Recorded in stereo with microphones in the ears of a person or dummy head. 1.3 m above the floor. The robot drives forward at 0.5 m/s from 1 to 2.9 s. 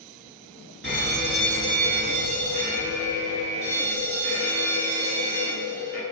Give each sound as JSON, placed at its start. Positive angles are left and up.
{"t": 0.8, "sound": "a fire alarm", "side_deg": -45, "distance_m": 1.3}